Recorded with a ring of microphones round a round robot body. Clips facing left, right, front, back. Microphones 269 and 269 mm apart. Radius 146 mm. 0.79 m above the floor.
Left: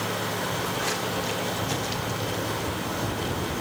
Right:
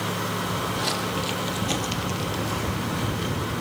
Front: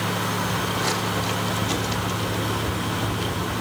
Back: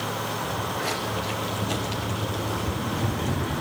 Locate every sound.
0.4 s footsteps: 75° right, 2.5 m; by 3.6 s 165° right, 0.9 m